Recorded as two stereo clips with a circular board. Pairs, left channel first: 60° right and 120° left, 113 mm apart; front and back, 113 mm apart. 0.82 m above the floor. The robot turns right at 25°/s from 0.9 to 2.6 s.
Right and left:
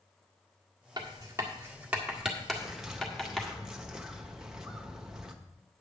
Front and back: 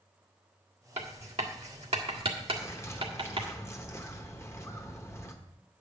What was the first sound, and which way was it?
Writing, 175° left.